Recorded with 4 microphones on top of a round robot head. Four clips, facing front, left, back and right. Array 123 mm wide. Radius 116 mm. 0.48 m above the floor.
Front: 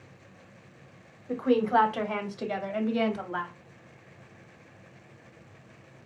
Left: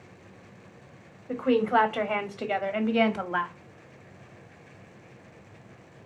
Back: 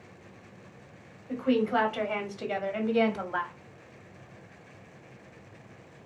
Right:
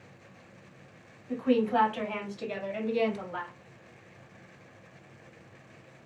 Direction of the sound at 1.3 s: 50° left.